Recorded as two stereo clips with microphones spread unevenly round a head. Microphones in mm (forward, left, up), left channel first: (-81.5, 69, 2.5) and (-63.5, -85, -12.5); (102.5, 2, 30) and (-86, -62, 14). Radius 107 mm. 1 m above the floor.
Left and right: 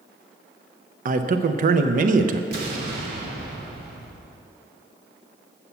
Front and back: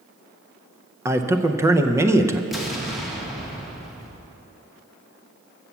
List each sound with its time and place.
1.1 s a man speaking: 90° right, 0.5 m
2.5 s an explosion: 75° right, 1.4 m